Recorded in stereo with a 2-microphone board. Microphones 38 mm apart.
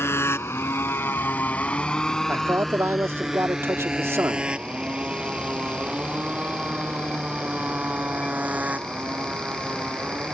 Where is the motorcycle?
80° left; by 10.3 s 35° right (ahead or behind).